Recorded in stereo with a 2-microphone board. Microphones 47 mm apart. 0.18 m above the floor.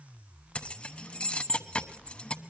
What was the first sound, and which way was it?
Keys jangling, 20° left (ahead or behind).